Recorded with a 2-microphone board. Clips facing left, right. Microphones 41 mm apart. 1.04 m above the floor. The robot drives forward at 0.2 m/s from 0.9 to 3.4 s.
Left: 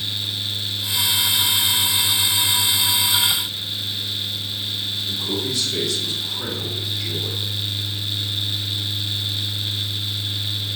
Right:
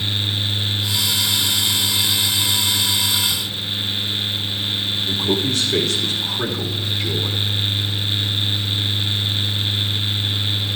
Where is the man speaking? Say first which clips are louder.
Right 6 dB; 55° right (ahead or behind), 2.5 m.